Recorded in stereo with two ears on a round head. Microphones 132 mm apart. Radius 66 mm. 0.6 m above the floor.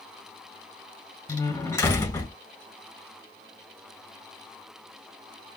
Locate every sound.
1.3 s a door slam: 15° left (ahead or behind), 3.5 m